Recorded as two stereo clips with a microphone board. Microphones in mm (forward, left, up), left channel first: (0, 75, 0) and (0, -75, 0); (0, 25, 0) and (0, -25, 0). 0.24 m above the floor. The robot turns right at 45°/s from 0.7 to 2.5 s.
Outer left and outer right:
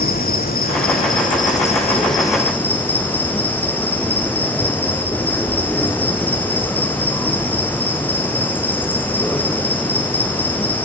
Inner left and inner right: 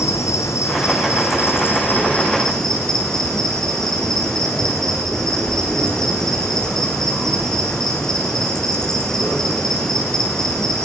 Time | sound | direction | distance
0.0 | an insect | 85° left | 1.1 m